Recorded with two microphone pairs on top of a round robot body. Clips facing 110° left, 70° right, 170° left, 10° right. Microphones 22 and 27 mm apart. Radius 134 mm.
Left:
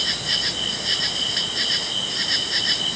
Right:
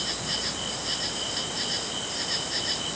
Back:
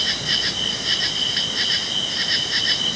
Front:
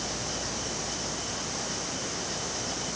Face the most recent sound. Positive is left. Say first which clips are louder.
# left 7 dB, back 13 dB
turn(degrees=165)